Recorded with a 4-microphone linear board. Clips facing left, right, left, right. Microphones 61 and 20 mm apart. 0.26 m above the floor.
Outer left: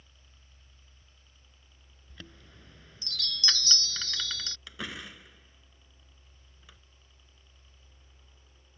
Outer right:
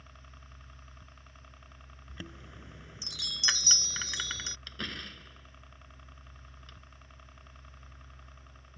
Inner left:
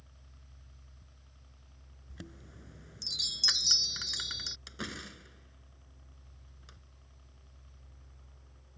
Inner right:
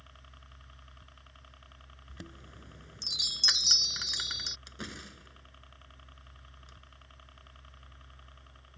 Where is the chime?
15° right (ahead or behind).